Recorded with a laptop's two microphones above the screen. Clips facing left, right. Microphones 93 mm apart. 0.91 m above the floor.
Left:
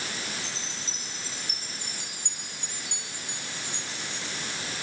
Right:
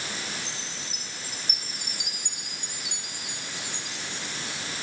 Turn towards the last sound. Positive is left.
turn(degrees=-15)  # may be behind; listen again after turning